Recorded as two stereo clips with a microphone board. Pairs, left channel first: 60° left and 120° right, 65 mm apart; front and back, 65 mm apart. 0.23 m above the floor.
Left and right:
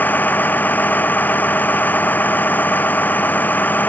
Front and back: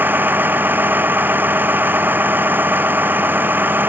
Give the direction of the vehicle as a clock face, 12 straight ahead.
8 o'clock.